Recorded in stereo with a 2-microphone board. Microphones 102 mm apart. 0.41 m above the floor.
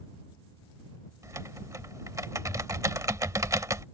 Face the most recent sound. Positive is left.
turn(degrees=-35)  # may be behind; listen again after turning